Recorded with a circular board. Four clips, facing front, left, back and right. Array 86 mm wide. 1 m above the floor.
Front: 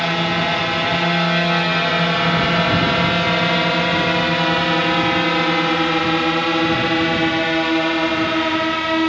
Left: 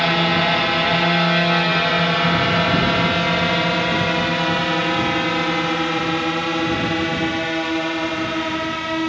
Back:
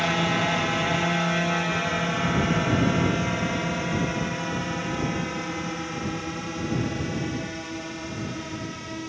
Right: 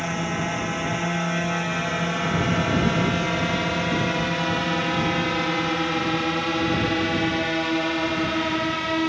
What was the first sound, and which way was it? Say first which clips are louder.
A drone: left 8 dB, front 4 dB; 65° left.